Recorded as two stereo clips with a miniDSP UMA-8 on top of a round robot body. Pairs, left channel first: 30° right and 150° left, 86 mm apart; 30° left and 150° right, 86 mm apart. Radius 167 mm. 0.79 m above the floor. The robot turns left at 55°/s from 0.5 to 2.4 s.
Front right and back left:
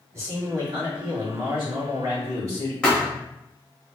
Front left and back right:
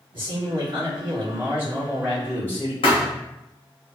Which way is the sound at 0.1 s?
155° right.